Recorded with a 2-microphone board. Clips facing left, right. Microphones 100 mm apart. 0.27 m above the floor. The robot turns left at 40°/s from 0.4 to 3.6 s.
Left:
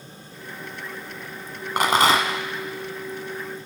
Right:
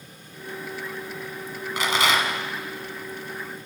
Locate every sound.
1.8 s a rattle: 55° left (ahead or behind), 1.3 m; by 2.4 s 30° left (ahead or behind), 1.3 m